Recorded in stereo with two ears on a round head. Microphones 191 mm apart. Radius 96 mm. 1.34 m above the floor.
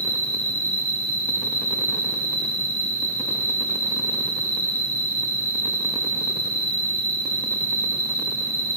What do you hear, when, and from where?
0.0 s an insect: 45° left (ahead or behind), 1.6 m